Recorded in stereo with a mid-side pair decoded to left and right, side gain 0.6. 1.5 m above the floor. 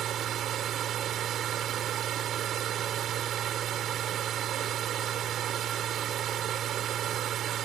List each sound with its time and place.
0.0 s a machine running: 50° right